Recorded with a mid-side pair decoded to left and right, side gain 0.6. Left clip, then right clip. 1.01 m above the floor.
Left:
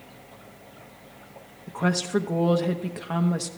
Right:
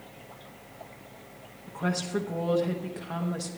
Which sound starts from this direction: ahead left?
A woman speaking, at 1.7 s.